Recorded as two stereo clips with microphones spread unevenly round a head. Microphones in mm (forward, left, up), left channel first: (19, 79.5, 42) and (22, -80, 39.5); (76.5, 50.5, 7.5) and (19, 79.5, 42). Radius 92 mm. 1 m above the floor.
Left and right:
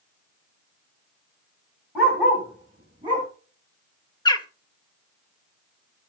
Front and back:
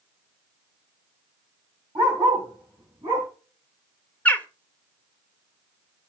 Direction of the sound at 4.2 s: 25° left.